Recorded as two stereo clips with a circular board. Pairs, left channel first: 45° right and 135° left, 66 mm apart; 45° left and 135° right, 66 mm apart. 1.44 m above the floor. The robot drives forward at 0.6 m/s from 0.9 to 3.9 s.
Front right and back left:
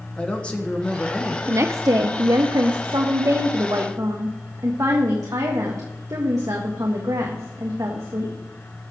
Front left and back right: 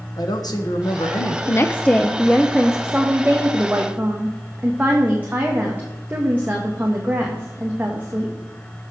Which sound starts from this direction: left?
A woman speaking, at 1.5 s.